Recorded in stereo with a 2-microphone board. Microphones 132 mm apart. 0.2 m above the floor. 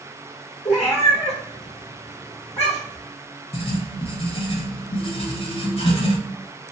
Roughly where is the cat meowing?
Left.